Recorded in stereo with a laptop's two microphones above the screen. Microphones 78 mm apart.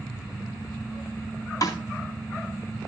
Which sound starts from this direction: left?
A snare drum, at 1.6 s.